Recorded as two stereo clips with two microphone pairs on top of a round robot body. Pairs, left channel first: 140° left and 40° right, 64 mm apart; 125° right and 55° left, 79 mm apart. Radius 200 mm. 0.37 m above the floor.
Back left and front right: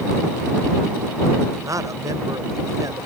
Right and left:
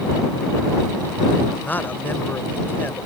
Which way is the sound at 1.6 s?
55° right.